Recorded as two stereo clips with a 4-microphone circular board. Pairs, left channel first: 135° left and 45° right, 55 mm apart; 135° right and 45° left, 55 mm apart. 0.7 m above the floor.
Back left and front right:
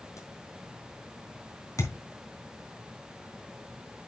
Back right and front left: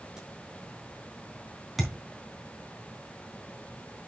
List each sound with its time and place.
0.2 s a crack: 115° left, 6 m
1.8 s a thud: 130° left, 3.5 m